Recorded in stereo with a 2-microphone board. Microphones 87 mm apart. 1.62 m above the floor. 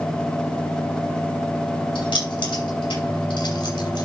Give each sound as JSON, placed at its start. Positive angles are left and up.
{"t": 1.9, "sound": "keys jangling", "side_deg": 75, "distance_m": 6.0}